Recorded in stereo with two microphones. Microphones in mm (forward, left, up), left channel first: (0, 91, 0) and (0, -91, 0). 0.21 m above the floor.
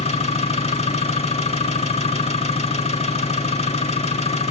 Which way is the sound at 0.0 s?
35° left (ahead or behind).